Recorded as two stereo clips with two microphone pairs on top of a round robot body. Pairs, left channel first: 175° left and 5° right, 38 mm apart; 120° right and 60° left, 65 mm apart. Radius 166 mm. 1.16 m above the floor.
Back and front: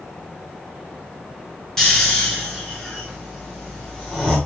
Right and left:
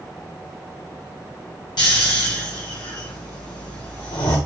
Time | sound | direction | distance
1.8 | snoring | 110° right | 1.4 m